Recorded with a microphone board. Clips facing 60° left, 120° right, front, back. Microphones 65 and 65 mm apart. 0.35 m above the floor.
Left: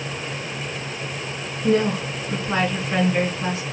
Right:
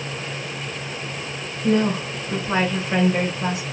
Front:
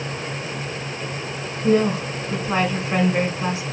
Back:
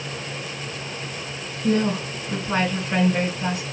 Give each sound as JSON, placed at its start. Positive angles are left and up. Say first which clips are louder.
{"t": 1.6, "sound": "a woman speaking", "louder": "even, front 3 dB", "azimuth_deg": -55, "distance_m": 1.9}